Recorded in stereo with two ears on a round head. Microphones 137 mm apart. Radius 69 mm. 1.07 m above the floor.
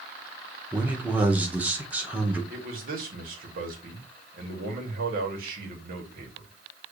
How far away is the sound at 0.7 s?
About 1.0 m.